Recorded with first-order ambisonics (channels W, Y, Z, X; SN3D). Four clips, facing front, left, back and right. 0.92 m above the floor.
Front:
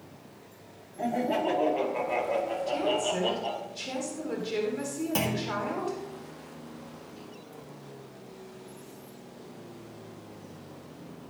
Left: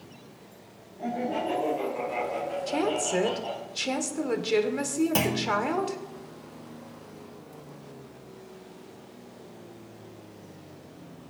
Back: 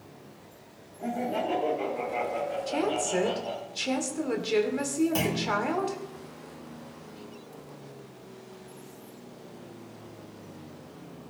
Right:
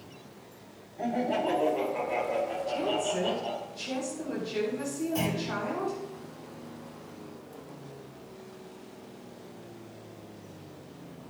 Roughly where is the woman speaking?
Behind left.